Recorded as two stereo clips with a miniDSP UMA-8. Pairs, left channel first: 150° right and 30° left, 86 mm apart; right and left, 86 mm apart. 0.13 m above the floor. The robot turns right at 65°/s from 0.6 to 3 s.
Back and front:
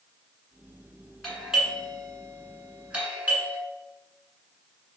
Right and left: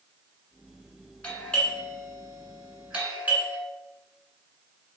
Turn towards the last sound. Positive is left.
turn(degrees=55)